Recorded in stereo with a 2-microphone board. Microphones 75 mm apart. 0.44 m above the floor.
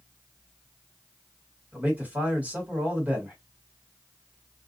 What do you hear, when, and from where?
1.7 s a man speaking: 25° right (ahead or behind), 1.6 m